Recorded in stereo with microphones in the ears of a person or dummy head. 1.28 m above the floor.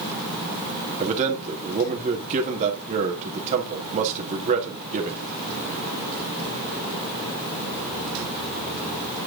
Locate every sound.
1.0 s a man speaking: 40° right (ahead or behind), 1.7 m